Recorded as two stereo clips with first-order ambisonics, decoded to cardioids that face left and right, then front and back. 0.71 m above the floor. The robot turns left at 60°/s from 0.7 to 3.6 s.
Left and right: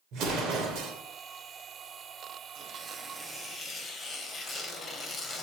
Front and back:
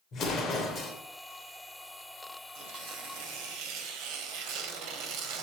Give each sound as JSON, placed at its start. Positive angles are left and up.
{"t": 0.1, "sound": "an explosion", "azimuth_deg": -55, "distance_m": 2.5}
{"t": 2.5, "sound": "tearing paper", "azimuth_deg": -135, "distance_m": 2.0}